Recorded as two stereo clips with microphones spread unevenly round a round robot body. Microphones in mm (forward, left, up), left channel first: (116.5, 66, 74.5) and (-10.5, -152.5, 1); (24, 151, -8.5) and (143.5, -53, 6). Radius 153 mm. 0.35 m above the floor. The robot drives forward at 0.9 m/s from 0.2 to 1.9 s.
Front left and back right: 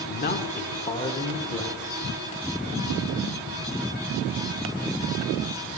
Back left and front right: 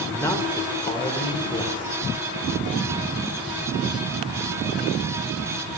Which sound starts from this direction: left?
A man speaking, at 0.1 s.